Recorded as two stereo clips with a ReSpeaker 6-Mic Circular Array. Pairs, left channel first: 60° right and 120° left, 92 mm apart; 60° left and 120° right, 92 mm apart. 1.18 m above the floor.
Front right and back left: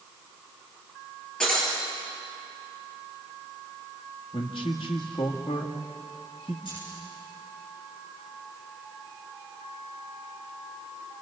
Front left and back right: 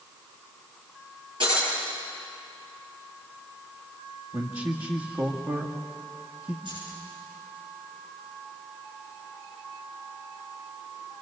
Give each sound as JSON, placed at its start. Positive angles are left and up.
{"t": 1.4, "sound": "breaking glass", "azimuth_deg": -140, "distance_m": 8.5}
{"t": 4.3, "sound": "a man speaking", "azimuth_deg": -70, "distance_m": 2.0}
{"t": 6.7, "sound": "keys jangling", "azimuth_deg": -95, "distance_m": 9.5}